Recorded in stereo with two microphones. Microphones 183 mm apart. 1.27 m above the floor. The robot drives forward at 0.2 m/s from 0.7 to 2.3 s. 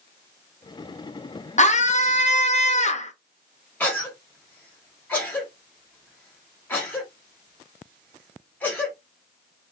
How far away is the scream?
About 0.5 m.